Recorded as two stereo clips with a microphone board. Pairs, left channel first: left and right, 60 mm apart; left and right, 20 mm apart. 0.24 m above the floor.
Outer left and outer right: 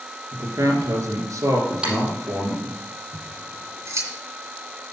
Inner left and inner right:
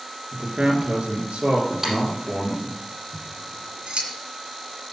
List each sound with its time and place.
0.3 s a man speaking: 70° right (ahead or behind), 3.5 m
1.8 s typing on a keyboard: 20° right (ahead or behind), 4.5 m
3.1 s scissors: 55° right (ahead or behind), 2.5 m